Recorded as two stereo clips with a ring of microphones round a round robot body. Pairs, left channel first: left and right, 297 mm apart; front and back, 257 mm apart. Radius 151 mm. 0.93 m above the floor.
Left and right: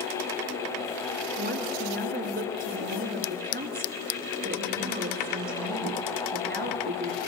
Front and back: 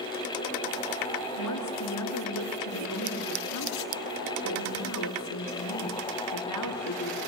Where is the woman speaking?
30° right, 3 m.